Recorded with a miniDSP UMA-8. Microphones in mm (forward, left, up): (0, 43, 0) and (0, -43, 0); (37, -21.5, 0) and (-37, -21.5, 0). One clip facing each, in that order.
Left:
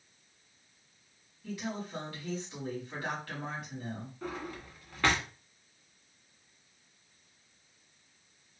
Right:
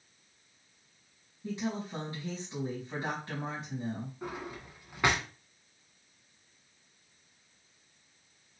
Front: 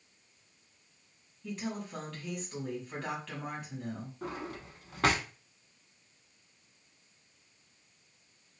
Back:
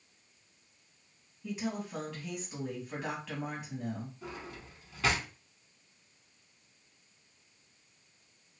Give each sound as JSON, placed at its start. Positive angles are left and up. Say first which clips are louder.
{"t": 1.4, "sound": "a woman speaking", "louder": "right 3 dB, back 2 dB", "azimuth_deg": -105, "distance_m": 1.7}
{"t": 4.2, "sound": "a drawer", "louder": "even, front 5 dB", "azimuth_deg": -20, "distance_m": 0.7}